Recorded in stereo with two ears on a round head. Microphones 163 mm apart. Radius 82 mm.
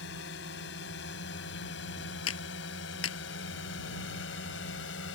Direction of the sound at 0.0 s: 70° left (ahead or behind).